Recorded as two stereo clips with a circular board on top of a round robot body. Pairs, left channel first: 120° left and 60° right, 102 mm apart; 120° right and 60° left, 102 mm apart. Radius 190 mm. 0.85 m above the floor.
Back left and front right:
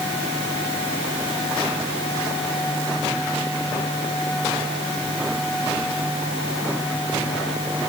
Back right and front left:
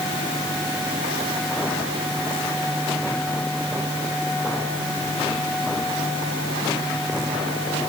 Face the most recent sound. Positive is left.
No sound to turn to.